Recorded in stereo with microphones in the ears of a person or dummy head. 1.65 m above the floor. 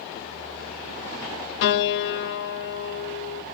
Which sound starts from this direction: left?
A piano, at 1.6 s.